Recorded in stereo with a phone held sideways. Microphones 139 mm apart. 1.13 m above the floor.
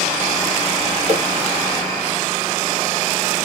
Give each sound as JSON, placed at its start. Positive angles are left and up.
{"t": 1.1, "sound": "a whoosh", "side_deg": -55, "distance_m": 0.9}